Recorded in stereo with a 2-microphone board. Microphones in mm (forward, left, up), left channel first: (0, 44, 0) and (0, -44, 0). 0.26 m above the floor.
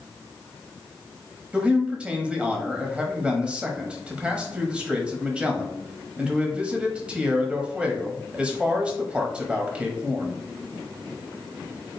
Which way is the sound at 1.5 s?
15° right (ahead or behind).